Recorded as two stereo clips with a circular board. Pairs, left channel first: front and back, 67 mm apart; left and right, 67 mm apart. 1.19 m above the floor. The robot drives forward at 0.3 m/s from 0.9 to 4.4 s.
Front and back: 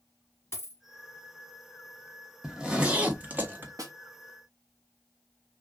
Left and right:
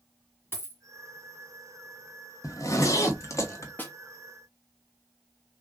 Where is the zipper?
100° left, 0.9 m; by 3.7 s 125° left, 1.0 m.